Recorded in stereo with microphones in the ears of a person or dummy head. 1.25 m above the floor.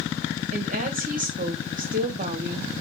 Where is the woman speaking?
40° right (ahead or behind), 1.0 m.